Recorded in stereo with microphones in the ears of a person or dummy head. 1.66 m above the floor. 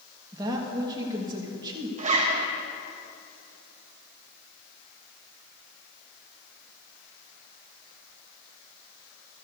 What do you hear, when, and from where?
0.3 s a woman speaking: 25° right (ahead or behind), 1.6 m
2.0 s a zipper: 40° right (ahead or behind), 1.1 m